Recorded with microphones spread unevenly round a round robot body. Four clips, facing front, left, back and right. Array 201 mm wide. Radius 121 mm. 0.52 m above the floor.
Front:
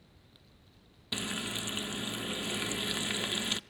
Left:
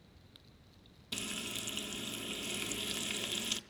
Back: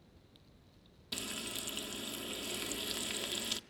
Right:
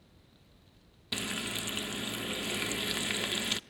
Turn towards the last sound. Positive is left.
turn(degrees=-35)